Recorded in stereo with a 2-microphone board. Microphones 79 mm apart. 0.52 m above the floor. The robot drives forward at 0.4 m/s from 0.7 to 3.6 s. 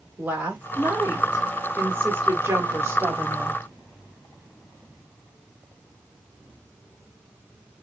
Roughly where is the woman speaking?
Right.